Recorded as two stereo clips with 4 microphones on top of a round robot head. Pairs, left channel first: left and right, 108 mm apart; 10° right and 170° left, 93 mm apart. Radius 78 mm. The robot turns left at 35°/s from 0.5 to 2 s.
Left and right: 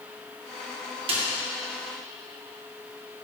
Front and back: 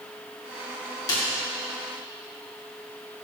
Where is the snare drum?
60° right, 3 m; by 1.2 s 65° right, 3 m.